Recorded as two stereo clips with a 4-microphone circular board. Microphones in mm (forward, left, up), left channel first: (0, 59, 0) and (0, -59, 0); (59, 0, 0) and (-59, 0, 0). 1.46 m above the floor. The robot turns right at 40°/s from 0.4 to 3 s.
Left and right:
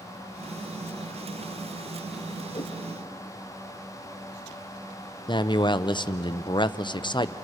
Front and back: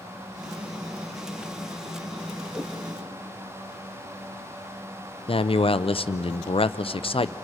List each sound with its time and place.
2.5 s a whoosh: 115° left, 2.5 m; by 2.7 s 125° left, 2.5 m
5.3 s a man speaking: 40° left, 0.6 m